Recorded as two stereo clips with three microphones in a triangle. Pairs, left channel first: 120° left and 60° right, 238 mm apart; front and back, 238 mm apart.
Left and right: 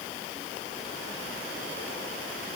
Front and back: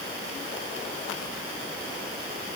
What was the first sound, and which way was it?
Only background noise.